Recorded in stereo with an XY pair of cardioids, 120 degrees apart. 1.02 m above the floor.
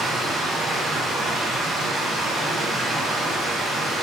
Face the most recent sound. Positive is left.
turn(degrees=-35)